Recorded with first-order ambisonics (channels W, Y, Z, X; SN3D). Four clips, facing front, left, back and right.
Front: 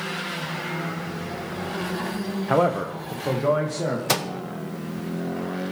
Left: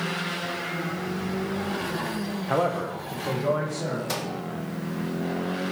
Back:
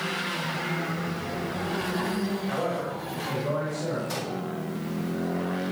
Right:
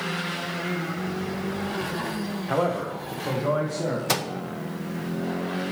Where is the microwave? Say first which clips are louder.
Right 4 dB, front 7 dB; 30° right, 0.6 m.